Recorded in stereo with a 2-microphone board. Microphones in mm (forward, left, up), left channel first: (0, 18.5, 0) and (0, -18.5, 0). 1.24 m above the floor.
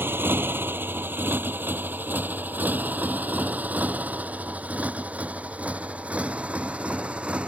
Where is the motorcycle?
75° right (ahead or behind); by 7.5 s 30° right (ahead or behind).